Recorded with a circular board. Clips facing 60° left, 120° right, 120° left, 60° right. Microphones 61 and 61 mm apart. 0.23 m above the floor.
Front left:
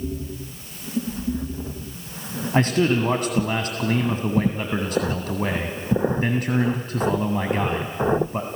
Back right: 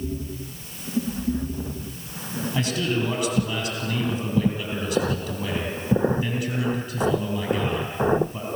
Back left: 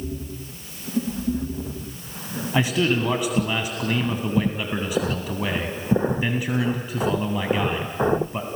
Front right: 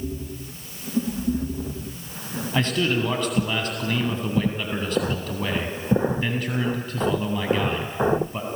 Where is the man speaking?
45° left, 2 m.